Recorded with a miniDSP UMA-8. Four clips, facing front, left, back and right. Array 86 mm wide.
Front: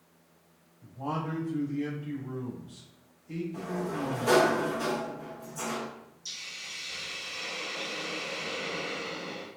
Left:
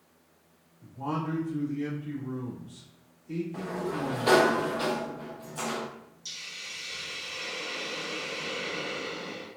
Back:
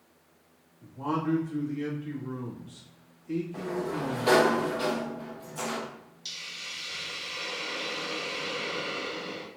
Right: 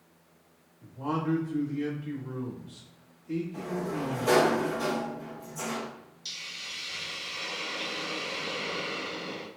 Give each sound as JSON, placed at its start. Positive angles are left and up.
{"t": 0.8, "sound": "a man speaking", "azimuth_deg": -175, "distance_m": 1.7}
{"t": 3.5, "sound": "a sliding door", "azimuth_deg": 125, "distance_m": 0.6}
{"t": 6.2, "sound": "a hiss", "azimuth_deg": -160, "distance_m": 0.9}